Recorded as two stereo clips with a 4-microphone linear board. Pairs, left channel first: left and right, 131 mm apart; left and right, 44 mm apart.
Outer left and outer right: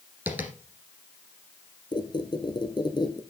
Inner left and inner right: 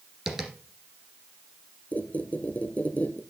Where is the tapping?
15° right (ahead or behind), 2.0 m.